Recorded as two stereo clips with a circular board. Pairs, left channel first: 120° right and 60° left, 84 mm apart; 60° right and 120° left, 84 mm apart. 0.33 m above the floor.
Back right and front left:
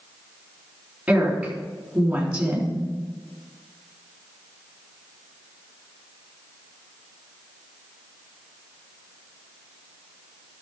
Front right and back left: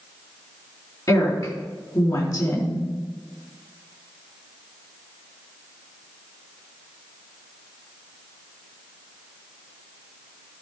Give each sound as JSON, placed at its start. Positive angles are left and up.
{"t": 1.1, "sound": "a woman speaking", "azimuth_deg": -15, "distance_m": 4.0}